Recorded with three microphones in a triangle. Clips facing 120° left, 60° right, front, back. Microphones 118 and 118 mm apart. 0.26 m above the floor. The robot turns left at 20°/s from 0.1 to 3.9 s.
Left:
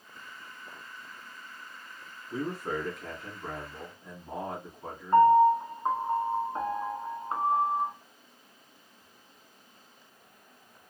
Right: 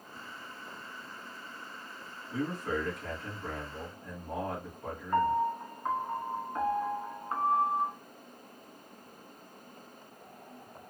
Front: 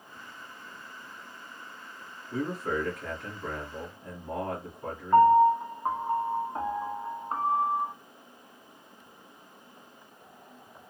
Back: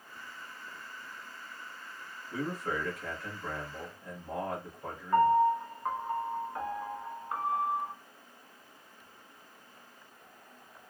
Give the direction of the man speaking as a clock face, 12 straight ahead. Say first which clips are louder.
Even, front 4 dB; 9 o'clock.